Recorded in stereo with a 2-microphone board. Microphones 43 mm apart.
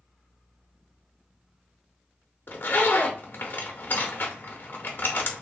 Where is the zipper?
50° left (ahead or behind), 0.7 m.